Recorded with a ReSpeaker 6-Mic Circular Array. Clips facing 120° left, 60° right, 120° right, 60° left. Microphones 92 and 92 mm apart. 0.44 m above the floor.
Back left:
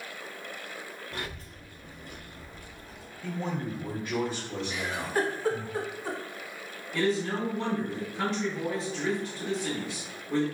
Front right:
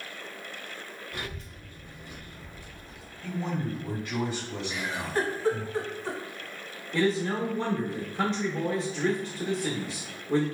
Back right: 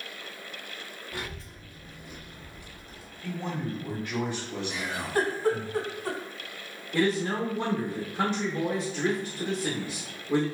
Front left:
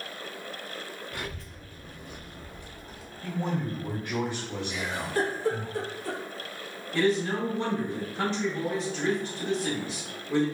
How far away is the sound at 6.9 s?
About 0.8 m.